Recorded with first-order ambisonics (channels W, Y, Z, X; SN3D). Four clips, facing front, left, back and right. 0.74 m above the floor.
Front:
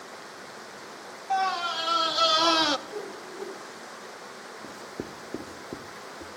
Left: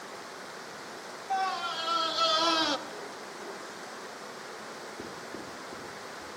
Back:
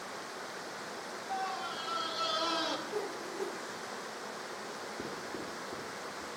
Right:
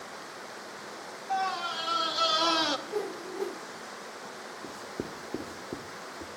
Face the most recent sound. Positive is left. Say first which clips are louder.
# right 2 dB, front 2 dB
turn(degrees=-45)